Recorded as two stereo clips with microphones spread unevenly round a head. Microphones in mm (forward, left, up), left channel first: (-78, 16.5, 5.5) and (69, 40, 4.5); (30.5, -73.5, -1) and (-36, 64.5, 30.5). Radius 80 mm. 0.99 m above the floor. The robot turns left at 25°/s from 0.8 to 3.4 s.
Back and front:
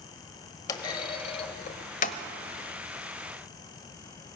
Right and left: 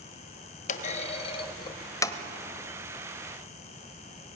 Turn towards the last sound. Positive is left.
turn(degrees=-170)